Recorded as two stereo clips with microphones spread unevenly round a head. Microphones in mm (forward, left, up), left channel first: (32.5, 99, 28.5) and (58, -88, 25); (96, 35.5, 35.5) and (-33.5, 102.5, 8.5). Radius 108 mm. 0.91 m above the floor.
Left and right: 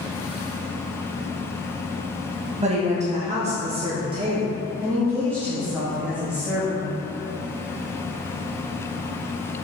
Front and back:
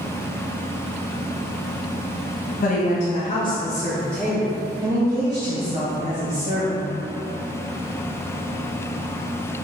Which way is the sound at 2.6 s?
45° right.